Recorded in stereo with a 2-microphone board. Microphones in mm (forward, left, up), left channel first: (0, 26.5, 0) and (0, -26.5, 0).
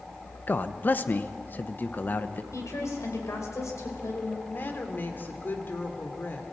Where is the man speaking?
40° left (ahead or behind), 0.9 m.